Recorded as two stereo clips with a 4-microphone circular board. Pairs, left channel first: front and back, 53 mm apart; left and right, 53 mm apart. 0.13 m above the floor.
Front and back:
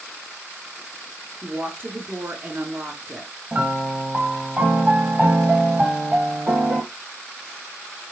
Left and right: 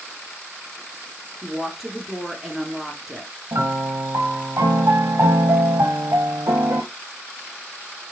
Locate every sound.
1.4 s a woman speaking: 175° right, 1.9 m
3.5 s a piano: 120° right, 1.1 m